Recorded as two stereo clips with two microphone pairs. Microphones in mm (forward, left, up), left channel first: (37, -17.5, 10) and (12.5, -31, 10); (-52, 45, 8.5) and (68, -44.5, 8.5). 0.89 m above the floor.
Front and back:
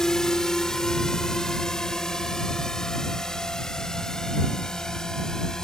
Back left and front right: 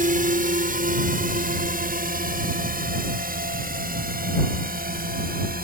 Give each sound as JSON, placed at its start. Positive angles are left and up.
{"t": 0.0, "sound": "a drone", "azimuth_deg": -45}